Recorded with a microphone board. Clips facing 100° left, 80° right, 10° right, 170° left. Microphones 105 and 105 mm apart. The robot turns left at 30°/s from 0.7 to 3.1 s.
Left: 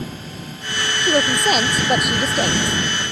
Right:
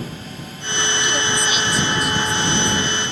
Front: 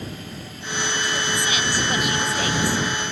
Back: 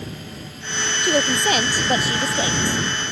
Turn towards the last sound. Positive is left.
turn(degrees=85)